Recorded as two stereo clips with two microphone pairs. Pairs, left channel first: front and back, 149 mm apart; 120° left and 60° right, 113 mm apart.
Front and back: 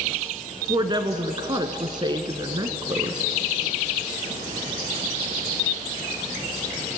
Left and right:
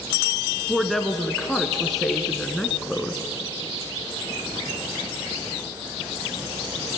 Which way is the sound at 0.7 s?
150° right.